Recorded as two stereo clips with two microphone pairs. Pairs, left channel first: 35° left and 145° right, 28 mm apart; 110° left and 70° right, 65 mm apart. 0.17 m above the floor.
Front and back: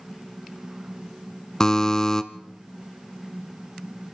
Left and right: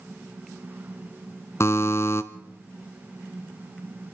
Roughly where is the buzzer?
Left.